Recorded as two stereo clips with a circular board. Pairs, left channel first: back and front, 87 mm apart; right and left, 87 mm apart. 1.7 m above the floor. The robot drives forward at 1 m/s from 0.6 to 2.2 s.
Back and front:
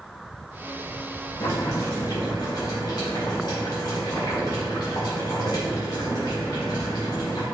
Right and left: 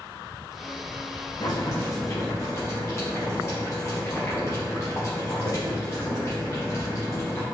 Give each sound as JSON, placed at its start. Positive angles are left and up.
{"t": 1.4, "sound": "boiling", "azimuth_deg": -130, "distance_m": 2.0}